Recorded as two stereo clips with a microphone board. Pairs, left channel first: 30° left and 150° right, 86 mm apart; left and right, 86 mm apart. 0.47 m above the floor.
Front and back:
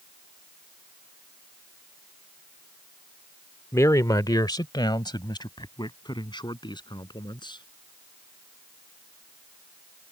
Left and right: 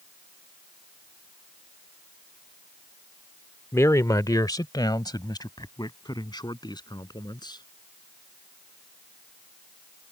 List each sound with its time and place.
3.7 s a man speaking: 55° left